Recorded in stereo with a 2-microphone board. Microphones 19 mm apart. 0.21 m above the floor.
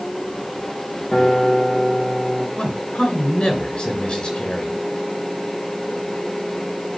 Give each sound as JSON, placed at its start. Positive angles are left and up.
{"t": 1.1, "sound": "a guitar", "side_deg": 70, "distance_m": 4.0}
{"t": 2.6, "sound": "a man speaking", "side_deg": 60, "distance_m": 3.5}